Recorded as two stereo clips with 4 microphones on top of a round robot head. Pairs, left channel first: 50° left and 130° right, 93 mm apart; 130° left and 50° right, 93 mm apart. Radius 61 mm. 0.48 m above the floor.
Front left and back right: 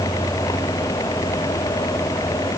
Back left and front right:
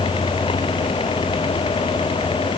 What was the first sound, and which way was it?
Only background noise.